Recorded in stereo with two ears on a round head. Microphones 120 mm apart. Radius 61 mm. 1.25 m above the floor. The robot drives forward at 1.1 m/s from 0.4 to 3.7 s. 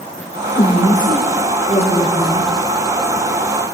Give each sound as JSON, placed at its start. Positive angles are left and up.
{"t": 0.6, "sound": "a woman speaking", "side_deg": 15, "distance_m": 4.0}